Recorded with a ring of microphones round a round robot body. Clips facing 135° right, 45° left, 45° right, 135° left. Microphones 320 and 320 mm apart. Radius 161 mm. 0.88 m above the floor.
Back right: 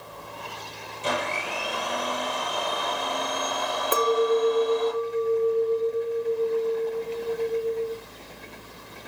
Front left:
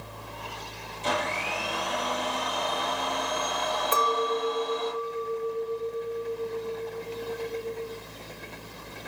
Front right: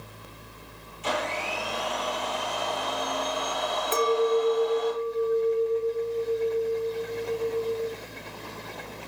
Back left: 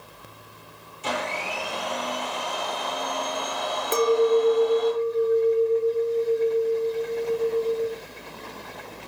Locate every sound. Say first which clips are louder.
1.0 s a blender: back right 1 dB, even; 145° left, 8.5 m
3.9 s a clink: back right 8 dB, back left 4 dB; 175° left, 1.2 m